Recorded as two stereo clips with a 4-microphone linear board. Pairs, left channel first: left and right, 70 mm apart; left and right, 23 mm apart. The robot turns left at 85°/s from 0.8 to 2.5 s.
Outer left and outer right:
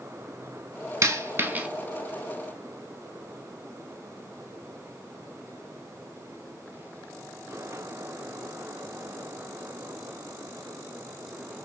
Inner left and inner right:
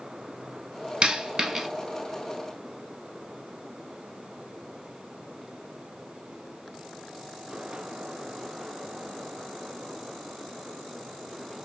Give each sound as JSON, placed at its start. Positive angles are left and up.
{"t": 1.0, "sound": "a dropped coin", "side_deg": -40, "distance_m": 1.2}